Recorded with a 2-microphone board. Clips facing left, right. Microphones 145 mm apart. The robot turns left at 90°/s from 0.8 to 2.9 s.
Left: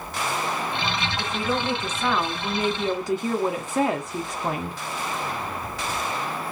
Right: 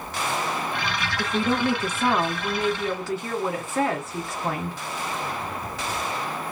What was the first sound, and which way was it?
A woman speaking, 55° right.